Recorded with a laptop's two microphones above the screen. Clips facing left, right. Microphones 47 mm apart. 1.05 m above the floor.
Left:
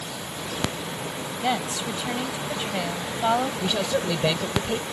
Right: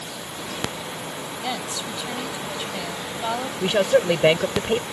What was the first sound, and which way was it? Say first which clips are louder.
A woman speaking: left 4 dB; 20° left (ahead or behind).